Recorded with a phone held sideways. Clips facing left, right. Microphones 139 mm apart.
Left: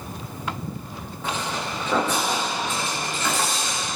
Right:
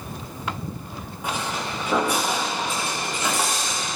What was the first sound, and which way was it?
Footsteps, 15° right (ahead or behind).